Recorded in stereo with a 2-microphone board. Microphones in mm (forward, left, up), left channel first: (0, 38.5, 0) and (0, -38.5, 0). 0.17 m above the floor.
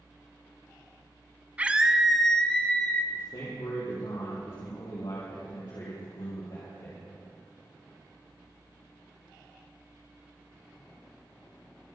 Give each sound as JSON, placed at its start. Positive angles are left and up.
{"t": 1.6, "sound": "a scream", "side_deg": -20, "distance_m": 1.0}
{"t": 3.1, "sound": "a man speaking", "side_deg": 70, "distance_m": 4.5}